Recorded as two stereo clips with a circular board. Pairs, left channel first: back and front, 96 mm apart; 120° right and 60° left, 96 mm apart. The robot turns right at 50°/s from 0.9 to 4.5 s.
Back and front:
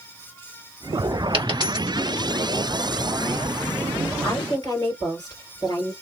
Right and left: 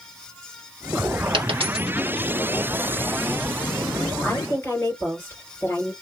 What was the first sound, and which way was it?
A dropped coin, 30° left.